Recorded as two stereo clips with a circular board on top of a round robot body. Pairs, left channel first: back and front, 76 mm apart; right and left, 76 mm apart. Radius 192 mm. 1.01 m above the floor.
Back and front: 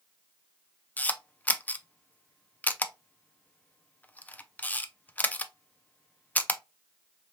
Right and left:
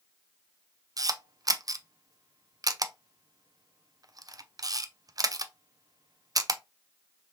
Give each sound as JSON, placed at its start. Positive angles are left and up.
{"t": 1.0, "sound": "a camera shutter", "azimuth_deg": 115, "distance_m": 0.6}